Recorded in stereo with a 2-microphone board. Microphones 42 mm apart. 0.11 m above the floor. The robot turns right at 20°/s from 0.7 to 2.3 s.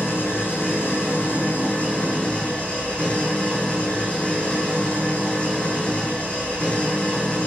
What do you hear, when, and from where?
0.0 s an engine running: 120° left, 4.5 m; by 7.5 s 150° left, 4.5 m